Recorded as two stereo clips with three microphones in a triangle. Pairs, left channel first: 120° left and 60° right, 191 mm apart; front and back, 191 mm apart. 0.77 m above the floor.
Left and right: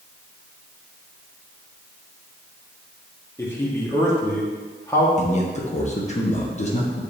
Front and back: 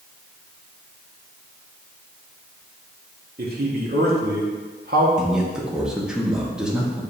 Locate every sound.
3.4 s a man speaking: 165° right, 1.4 m
5.2 s a man speaking: 95° left, 1.2 m